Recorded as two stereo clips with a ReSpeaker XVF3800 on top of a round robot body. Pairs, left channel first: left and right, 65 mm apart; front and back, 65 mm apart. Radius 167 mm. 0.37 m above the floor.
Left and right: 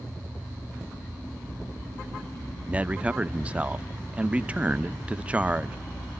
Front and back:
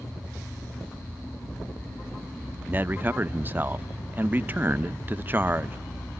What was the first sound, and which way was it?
A man speaking, 145° right.